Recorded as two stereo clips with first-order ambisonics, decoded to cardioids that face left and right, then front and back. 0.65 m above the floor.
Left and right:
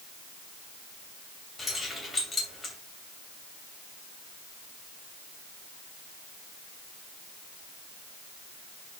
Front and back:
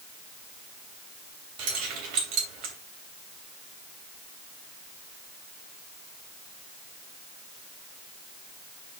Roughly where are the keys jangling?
Behind.